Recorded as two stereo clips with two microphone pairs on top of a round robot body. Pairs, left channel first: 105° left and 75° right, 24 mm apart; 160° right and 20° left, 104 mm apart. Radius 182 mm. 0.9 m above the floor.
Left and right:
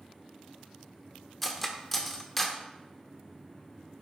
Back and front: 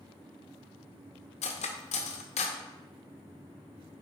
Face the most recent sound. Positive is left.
turn(degrees=-170)